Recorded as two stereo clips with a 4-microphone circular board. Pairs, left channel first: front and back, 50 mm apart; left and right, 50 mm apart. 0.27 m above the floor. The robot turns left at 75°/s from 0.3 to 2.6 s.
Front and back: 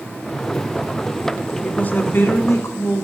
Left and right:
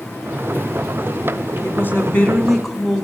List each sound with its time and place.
1.6 s a woman speaking: 70° left, 2 m; by 3.0 s 5° right, 2 m